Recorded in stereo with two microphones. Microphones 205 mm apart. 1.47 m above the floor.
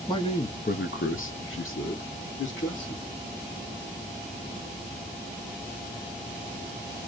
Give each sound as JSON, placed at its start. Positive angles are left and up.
{"t": 0.1, "sound": "a man speaking", "side_deg": 20, "distance_m": 0.7}